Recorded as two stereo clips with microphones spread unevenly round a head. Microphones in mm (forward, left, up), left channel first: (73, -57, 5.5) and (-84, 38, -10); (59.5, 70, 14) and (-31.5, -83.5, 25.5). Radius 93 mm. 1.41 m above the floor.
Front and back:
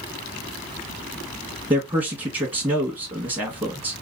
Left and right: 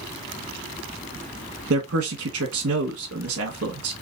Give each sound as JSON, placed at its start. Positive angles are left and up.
{"t": 1.7, "sound": "a man speaking", "azimuth_deg": -145, "distance_m": 1.3}